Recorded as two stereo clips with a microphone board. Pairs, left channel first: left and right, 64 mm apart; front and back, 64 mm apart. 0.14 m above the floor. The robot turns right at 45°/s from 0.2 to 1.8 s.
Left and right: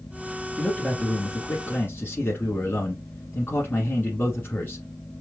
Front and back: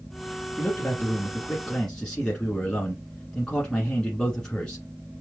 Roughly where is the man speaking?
Ahead.